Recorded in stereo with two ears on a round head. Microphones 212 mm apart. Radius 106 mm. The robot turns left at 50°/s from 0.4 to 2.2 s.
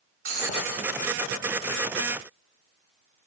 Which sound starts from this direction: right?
Breaking glass, at 0.2 s.